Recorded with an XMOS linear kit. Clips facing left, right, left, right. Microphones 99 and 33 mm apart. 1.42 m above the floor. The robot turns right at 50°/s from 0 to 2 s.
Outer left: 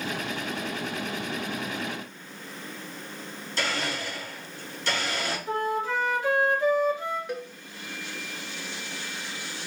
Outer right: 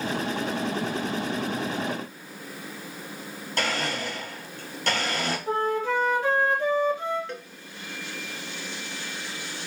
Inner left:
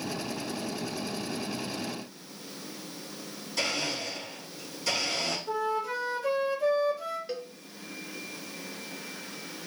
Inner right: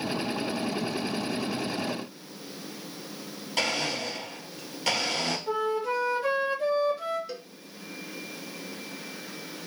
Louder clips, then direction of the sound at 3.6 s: Outer right 2 dB, inner right 3 dB; 55° right (ahead or behind).